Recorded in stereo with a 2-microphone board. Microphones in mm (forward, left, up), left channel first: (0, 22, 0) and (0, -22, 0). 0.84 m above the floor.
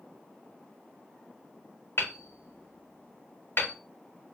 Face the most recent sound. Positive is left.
turn(degrees=65)  # may be behind; listen again after turning